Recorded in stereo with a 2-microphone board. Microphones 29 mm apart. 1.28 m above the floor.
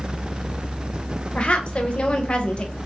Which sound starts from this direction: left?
A woman speaking, at 1.4 s.